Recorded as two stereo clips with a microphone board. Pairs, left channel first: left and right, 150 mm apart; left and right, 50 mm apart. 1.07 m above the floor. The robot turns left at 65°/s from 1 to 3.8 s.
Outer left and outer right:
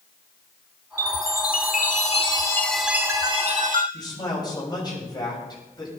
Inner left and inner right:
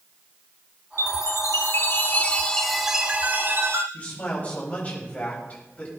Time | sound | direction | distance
1.0 | a chime | 115° left | 1.6 m
3.9 | a man speaking | 30° left (ahead or behind) | 7.5 m